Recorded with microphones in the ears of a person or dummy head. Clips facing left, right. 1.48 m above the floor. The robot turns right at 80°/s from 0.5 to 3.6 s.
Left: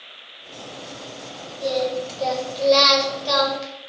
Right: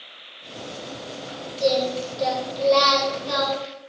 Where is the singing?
70° right, 5 m; by 3.7 s 90° left, 5 m.